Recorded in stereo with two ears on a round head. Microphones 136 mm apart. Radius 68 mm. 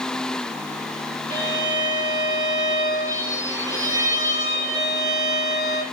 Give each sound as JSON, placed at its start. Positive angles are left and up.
{"t": 1.3, "sound": "a violin", "side_deg": -25, "distance_m": 6.5}